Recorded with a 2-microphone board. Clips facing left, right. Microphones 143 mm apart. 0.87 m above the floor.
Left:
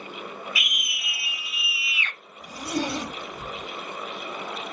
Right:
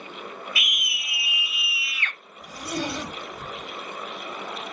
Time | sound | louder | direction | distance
0.6 | a scream | even | 35° right (ahead or behind) | 0.8 m
2.4 | a zipper | left 2 dB | 40° left (ahead or behind) | 1.8 m